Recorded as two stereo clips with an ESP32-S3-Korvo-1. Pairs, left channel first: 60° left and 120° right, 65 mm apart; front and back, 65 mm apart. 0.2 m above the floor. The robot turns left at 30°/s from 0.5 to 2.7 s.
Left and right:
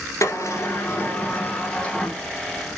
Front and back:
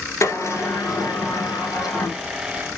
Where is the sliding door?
30° left, 1.9 m; by 2.2 s 20° right, 1.9 m.